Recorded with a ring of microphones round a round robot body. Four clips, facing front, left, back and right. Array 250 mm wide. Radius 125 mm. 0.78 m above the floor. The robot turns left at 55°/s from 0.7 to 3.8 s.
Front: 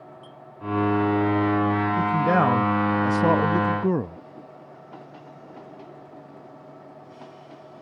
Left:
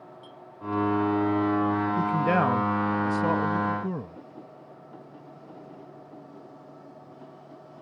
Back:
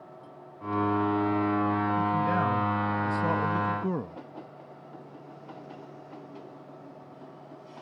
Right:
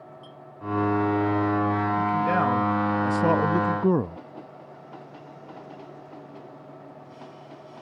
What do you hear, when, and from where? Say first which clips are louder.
0.2 s a clink: right 1 dB, front 2 dB; 10° left
2.0 s a man speaking: even, front 6 dB; 40° left; by 4.2 s 60° right